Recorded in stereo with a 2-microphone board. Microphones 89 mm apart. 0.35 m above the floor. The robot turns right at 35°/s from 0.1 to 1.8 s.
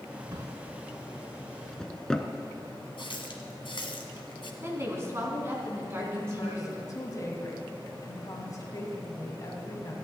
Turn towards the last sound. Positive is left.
turn(degrees=40)  # may be behind; listen again after turning